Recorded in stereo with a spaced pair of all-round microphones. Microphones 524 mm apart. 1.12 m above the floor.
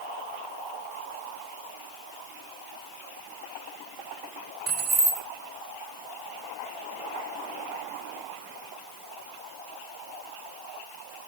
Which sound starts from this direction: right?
Keys jangling, at 4.7 s.